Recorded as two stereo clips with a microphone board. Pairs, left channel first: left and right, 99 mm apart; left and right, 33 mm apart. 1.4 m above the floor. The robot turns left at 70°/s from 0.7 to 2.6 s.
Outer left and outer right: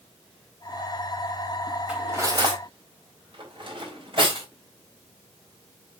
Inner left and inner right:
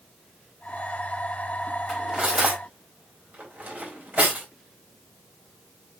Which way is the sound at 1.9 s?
15° right (ahead or behind).